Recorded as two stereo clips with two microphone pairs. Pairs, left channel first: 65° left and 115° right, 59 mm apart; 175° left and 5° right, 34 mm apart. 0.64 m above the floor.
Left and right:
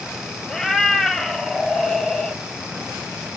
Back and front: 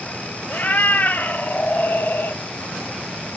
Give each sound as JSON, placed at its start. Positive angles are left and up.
{"t": 0.5, "sound": "a cat meowing", "azimuth_deg": 150, "distance_m": 2.0}